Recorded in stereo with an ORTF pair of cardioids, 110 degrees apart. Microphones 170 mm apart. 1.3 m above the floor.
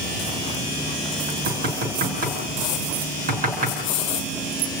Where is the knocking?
60° right, 5.5 m.